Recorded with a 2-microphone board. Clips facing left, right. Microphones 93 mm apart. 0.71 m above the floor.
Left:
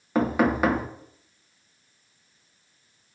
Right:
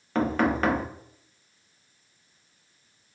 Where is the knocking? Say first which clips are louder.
Left 2 dB; 10° left (ahead or behind), 0.5 m.